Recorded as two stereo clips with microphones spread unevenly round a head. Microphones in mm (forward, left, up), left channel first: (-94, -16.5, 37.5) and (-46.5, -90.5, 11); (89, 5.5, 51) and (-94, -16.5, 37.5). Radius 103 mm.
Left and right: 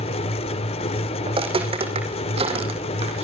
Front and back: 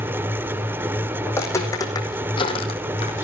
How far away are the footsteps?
About 5.5 m.